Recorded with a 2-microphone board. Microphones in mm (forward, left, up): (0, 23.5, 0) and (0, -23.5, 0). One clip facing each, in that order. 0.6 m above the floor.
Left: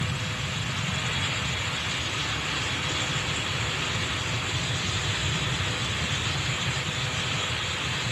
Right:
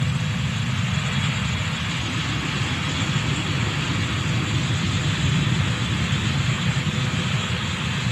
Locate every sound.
0.0 s an aircraft: 60° right (ahead or behind); by 8.1 s 80° right